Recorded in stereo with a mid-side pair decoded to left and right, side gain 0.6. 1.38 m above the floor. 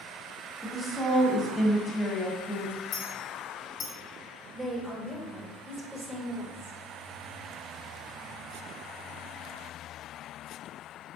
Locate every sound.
0.6 s a woman speaking: 25° left, 1.1 m
2.9 s a clink: 50° left, 1.0 m
4.5 s a woman speaking: 20° right, 0.9 m